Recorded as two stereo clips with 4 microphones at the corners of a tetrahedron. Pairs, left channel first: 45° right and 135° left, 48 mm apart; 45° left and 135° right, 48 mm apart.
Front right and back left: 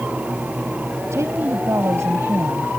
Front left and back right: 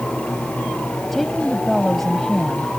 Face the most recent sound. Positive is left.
turn(degrees=135)